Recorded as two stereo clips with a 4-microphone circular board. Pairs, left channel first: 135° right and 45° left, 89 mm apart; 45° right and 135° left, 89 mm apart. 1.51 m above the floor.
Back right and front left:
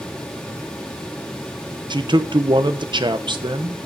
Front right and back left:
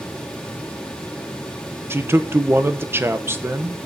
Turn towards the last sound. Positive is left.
turn(degrees=70)